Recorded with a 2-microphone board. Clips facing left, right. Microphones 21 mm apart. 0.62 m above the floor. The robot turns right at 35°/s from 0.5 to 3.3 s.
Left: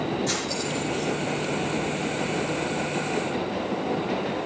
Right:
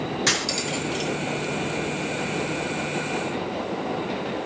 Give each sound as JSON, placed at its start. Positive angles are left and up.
{"t": 0.3, "sound": "cutlery clinking", "side_deg": -80, "distance_m": 4.5}